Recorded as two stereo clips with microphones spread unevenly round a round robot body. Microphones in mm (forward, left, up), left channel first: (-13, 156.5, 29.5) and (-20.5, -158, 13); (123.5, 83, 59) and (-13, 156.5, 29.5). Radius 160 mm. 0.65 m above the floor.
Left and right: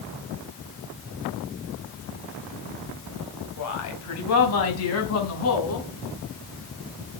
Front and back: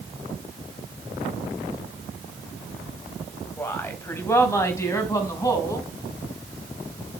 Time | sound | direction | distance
3.6 | a woman speaking | 50° left | 3.5 m